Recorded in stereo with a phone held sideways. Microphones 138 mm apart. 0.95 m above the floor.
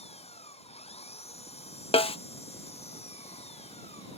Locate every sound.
0.0 s an engine running: 45° left (ahead or behind)
1.9 s a snare drum: 45° left (ahead or behind)